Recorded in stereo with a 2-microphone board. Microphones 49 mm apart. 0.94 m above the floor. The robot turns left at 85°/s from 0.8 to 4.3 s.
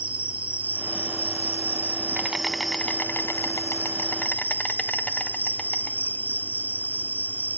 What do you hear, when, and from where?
0.0 s an insect: 30° right, 0.8 m; by 7.6 s 30° left, 0.8 m